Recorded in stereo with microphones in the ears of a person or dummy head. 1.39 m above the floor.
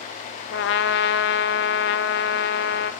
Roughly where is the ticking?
I don't hear ticking.